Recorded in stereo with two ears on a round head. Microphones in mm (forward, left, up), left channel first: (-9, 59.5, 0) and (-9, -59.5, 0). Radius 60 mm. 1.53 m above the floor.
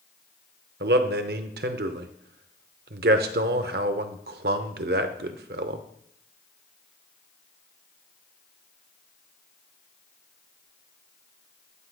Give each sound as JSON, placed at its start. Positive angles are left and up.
{"t": 0.8, "sound": "a man speaking", "side_deg": -75, "distance_m": 0.6}